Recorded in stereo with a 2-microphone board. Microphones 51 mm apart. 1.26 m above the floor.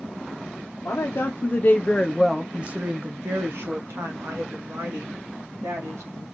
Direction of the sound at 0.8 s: 55° left (ahead or behind).